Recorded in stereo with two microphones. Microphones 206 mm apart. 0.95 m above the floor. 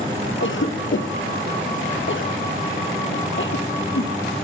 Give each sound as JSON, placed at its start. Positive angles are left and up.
{"t": 0.4, "sound": "a cough", "side_deg": 70, "distance_m": 0.7}